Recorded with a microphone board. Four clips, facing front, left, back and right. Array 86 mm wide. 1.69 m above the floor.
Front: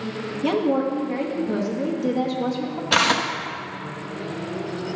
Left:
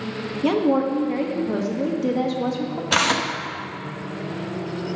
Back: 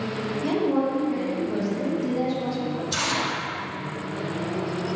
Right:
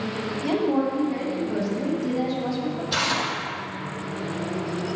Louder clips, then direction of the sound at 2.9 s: Left 7 dB, front 6 dB; 40° left.